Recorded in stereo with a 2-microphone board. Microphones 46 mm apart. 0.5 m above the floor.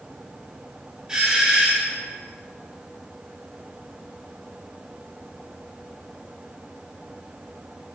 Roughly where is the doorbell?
Centre.